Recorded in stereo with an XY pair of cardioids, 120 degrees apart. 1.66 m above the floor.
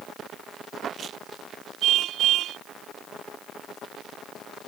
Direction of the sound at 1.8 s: 70° right.